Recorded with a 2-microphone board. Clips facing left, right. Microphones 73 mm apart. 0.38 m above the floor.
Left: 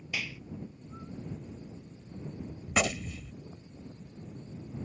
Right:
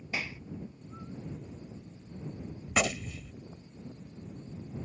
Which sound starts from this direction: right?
A clap, at 0.1 s.